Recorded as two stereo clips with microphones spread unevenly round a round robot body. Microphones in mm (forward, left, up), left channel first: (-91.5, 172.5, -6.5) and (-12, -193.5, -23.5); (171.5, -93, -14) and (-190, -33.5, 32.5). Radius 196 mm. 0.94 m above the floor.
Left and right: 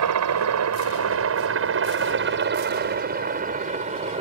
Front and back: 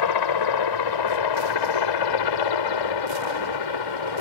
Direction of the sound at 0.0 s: 25° right.